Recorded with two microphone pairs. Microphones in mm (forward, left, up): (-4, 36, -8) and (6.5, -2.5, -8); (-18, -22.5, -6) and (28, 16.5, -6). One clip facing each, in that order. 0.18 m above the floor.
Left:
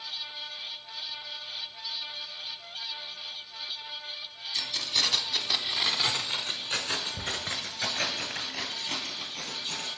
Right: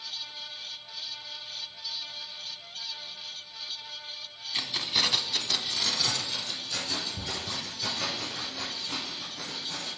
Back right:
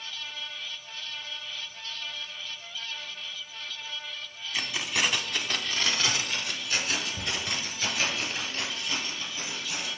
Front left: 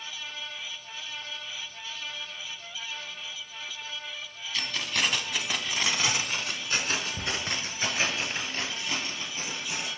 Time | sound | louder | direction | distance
4.5 | keys jangling | right 1 dB, back right 1 dB | 85° right | 0.8 m